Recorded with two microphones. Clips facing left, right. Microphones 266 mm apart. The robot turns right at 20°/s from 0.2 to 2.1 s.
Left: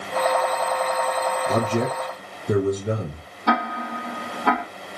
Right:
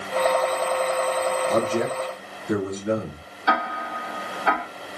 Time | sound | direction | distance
1.5 | a man speaking | 35° left (ahead or behind) | 2.5 m
3.5 | ticking | 60° left (ahead or behind) | 3 m